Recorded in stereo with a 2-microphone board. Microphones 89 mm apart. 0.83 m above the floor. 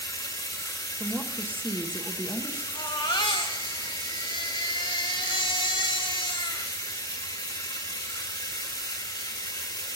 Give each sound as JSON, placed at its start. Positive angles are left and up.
{"t": 0.0, "sound": "running water", "side_deg": 55, "distance_m": 1.8}
{"t": 1.0, "sound": "a woman speaking", "side_deg": -20, "distance_m": 0.9}
{"t": 2.8, "sound": "a baby crying", "side_deg": 70, "distance_m": 1.6}